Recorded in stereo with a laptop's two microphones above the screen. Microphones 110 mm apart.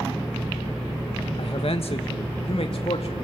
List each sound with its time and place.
1.4 s a man speaking: 60° left (ahead or behind), 1.3 m; by 3.2 s 65° left (ahead or behind), 2.5 m